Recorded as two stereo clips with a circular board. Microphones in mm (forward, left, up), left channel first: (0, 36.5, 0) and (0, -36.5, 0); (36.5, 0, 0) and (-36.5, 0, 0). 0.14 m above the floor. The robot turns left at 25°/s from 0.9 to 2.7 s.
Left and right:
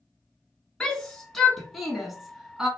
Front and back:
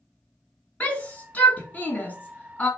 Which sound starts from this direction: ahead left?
A shout, at 0.8 s.